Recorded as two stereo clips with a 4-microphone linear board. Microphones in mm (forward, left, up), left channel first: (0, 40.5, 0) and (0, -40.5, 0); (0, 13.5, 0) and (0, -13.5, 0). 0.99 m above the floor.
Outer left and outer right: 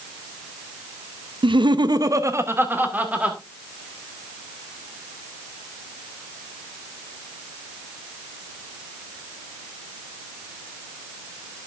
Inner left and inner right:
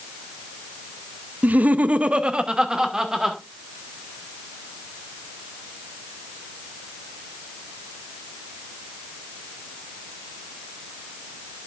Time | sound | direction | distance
1.4 | laughter | 80° right | 0.6 m